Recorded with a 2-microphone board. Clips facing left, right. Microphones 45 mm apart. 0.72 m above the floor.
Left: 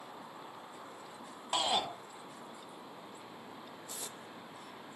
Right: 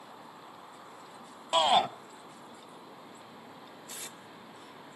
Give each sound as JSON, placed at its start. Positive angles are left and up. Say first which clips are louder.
{"t": 1.5, "sound": "a shout", "louder": "right 8 dB", "side_deg": -40, "distance_m": 1.0}
{"t": 3.9, "sound": "tape being pulled", "louder": "right 2 dB", "side_deg": -55, "distance_m": 1.4}